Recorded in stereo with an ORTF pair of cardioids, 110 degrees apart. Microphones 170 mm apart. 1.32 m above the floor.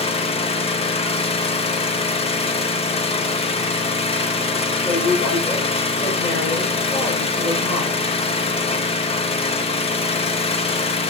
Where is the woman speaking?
30° left, 6.5 m.